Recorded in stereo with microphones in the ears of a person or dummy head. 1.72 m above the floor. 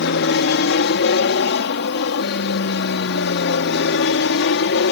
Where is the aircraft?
60° left (ahead or behind); by 4.9 s 65° left (ahead or behind).